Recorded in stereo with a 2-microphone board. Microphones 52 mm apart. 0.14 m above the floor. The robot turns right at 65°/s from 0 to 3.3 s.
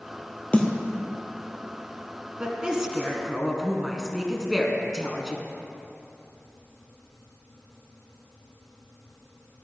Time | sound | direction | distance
0.5 | a snare drum | 25° left (ahead or behind) | 1.7 m
2.4 | a woman speaking | 20° right (ahead or behind) | 1.6 m